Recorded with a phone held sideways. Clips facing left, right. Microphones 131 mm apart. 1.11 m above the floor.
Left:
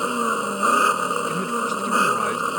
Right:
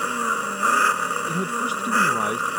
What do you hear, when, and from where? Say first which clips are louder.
0.0 s an engine running: left 3 dB; 20° left (ahead or behind)
1.3 s a man speaking: left 1 dB; 15° right (ahead or behind)